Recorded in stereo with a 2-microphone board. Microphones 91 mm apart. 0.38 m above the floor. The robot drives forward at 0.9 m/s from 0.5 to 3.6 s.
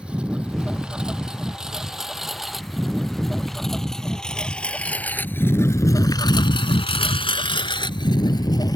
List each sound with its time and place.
0.0 s a lawn mower: 10° right (ahead or behind); by 8.8 s 45° left (ahead or behind)